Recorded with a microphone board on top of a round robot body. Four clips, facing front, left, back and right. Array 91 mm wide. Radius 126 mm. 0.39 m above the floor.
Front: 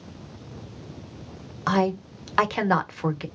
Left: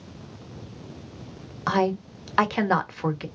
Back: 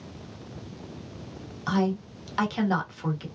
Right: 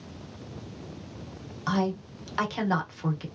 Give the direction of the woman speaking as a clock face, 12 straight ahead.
11 o'clock.